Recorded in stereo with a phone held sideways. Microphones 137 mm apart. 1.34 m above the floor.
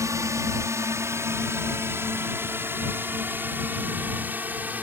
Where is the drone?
25° right (ahead or behind); by 4.8 s 10° right (ahead or behind).